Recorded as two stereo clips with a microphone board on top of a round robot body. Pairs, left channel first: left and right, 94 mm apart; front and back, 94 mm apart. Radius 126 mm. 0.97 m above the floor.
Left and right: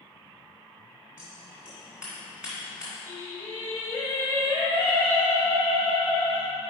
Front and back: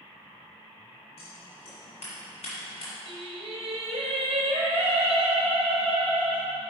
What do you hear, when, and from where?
1.2 s scissors: 10° right, 2.0 m
3.1 s singing: 155° left, 0.7 m